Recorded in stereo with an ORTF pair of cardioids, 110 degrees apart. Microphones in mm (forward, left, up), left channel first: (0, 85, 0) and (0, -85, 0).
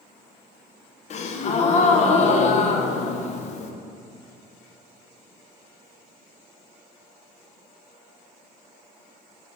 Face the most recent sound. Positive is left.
turn(degrees=45)